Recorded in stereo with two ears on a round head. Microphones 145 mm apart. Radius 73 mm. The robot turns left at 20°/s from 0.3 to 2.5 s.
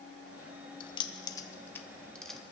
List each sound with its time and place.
0.8 s keys jangling: 30° left (ahead or behind), 0.7 m; by 2.4 s centre (ahead or behind), 0.7 m